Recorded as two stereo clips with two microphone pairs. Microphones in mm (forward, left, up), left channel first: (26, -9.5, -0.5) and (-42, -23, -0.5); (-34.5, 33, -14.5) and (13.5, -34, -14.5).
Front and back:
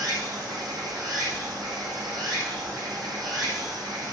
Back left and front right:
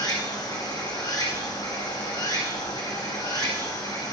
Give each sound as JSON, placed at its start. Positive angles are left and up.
{"t": 0.0, "sound": "running water", "azimuth_deg": 170, "distance_m": 8.5}